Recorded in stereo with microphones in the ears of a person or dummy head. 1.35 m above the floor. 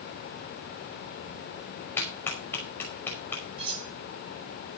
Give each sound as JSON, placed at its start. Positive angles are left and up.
{"t": 2.0, "sound": "a clap", "side_deg": 15, "distance_m": 5.0}
{"t": 3.6, "sound": "cutlery clinking", "side_deg": -30, "distance_m": 6.0}